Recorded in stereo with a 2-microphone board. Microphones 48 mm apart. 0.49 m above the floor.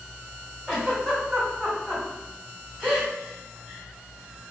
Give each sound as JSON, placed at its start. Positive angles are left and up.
{"t": 0.7, "sound": "a giggle", "side_deg": 0, "distance_m": 1.7}